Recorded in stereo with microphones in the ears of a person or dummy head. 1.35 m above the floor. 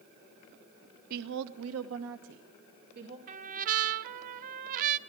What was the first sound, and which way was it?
A woman speaking, 45° right (ahead or behind).